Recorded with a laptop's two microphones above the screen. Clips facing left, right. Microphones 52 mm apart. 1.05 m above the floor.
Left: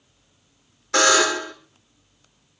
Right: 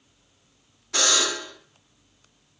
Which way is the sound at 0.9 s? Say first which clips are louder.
Left 8 dB; 60° left (ahead or behind).